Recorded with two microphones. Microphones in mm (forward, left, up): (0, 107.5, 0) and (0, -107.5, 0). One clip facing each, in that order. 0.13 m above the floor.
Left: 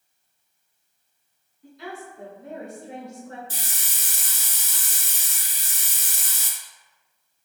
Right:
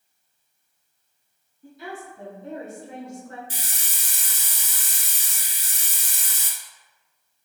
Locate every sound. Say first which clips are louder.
1.6 s a woman speaking: even; 10° right (ahead or behind), 1.7 m; by 3.4 s 30° left (ahead or behind), 1.8 m
3.5 s a hiss: even; 15° right (ahead or behind), 1.0 m